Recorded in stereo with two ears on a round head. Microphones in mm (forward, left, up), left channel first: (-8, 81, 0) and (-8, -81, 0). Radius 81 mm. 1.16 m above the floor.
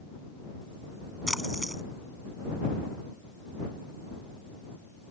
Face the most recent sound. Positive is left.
turn(degrees=0)  # may be behind; listen again after turning